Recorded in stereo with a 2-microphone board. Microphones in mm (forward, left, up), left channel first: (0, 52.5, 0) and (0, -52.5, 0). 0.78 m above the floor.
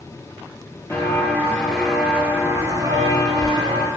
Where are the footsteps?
30° left (ahead or behind), 1.0 m; by 3.9 s 50° right (ahead or behind), 1.4 m.